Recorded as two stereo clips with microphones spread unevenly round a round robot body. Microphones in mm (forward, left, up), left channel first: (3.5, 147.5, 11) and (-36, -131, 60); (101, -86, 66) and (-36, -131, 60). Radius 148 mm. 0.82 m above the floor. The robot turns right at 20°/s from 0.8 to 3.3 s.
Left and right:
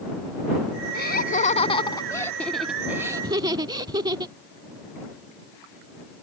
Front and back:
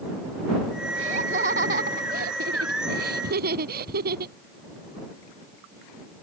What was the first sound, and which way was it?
Laughter, 140° left.